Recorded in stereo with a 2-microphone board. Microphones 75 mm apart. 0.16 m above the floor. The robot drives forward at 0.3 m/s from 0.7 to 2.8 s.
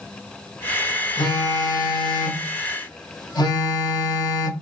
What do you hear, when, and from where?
1.2 s a phone buzzing: 60° left (ahead or behind), 0.9 m; by 4.5 s 75° left (ahead or behind), 0.8 m